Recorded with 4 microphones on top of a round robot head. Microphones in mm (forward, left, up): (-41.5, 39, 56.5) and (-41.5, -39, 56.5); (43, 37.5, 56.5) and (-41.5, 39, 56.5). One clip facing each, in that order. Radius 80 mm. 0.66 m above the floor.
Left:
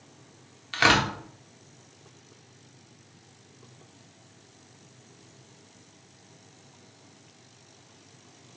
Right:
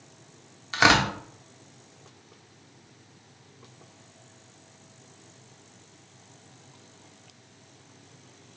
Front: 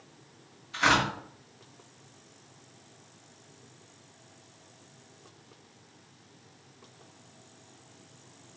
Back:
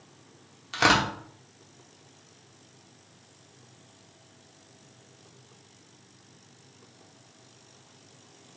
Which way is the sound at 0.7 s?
160° right.